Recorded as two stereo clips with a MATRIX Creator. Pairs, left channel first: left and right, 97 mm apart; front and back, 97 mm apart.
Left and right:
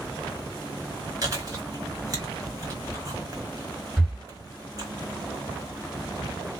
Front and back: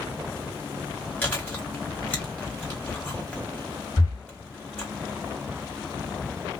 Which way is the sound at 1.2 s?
70° right.